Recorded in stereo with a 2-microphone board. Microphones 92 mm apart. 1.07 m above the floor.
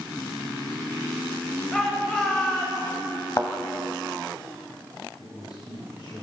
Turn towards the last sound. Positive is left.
turn(degrees=65)  # may be behind; listen again after turning